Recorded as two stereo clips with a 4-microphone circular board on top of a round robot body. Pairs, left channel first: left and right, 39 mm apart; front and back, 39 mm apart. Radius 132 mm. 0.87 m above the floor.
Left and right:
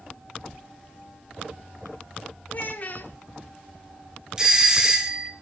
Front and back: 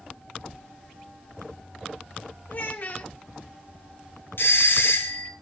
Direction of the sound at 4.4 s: 15° right.